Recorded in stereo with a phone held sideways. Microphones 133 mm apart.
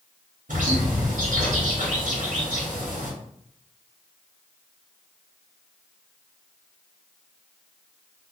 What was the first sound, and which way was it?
A bird, 80° right.